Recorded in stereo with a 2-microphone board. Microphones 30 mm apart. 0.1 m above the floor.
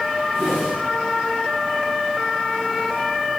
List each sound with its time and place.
0.3 s a whoosh: 10° left (ahead or behind), 6 m